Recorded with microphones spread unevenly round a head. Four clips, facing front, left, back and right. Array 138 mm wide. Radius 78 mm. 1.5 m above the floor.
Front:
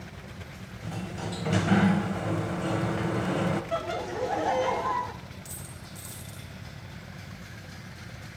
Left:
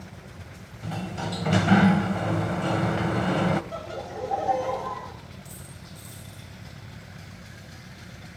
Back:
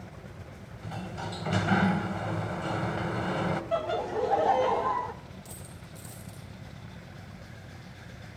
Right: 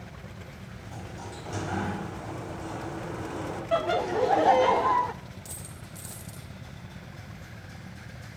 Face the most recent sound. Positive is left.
turn(degrees=-105)